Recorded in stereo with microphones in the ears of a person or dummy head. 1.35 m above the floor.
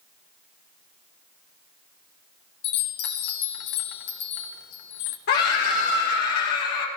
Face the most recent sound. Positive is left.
turn(degrees=60)  # may be behind; listen again after turning